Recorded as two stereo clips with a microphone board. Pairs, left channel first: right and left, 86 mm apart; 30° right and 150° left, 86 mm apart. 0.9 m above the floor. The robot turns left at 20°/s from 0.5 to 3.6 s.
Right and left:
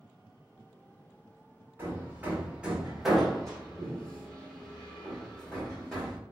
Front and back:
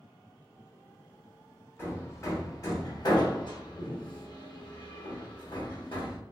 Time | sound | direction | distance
1.8 | hammering | 30° left | 1.0 m